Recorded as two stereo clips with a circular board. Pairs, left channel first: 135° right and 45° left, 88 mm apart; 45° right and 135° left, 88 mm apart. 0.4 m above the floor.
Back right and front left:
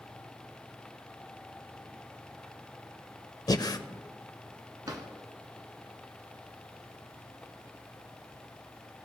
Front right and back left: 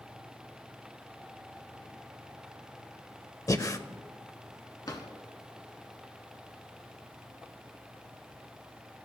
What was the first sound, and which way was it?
Breathing, 95° right.